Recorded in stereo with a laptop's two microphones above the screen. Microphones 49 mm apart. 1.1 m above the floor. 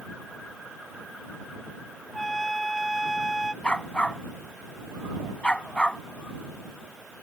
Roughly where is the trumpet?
Centre.